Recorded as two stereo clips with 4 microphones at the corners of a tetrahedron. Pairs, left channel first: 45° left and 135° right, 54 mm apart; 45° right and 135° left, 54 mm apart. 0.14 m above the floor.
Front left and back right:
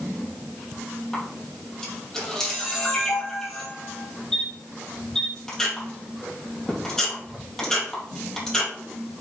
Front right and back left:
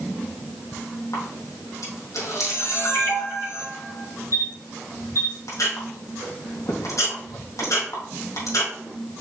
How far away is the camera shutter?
About 3 m.